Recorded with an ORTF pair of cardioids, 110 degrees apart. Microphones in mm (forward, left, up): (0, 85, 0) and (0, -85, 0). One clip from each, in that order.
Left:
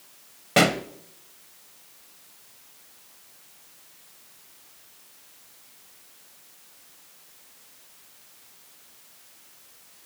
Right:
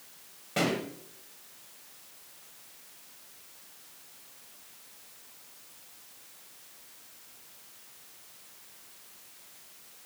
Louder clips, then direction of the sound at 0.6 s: Left 9 dB; 65° left.